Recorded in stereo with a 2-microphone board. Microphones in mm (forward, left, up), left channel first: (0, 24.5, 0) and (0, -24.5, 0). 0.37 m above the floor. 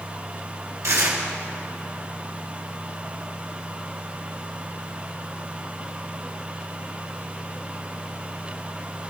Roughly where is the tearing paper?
Right.